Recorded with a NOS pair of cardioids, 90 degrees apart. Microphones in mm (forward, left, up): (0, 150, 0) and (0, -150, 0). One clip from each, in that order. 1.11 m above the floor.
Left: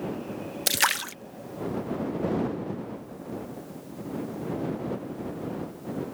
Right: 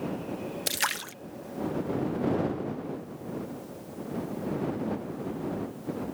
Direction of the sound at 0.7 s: 20° left.